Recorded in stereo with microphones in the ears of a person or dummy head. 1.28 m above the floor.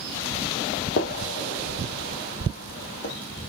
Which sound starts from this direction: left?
A gunshot, at 1.0 s.